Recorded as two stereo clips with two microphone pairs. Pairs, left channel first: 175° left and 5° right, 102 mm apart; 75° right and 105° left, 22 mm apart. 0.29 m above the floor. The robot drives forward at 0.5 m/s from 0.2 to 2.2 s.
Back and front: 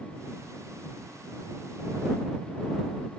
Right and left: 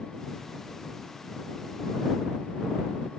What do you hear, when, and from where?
Only background noise.